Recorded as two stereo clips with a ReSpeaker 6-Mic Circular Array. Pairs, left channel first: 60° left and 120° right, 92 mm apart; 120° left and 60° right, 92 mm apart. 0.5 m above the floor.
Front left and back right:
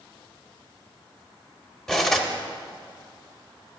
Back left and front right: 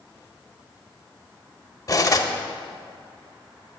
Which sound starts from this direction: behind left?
Cutlery clinking, at 1.9 s.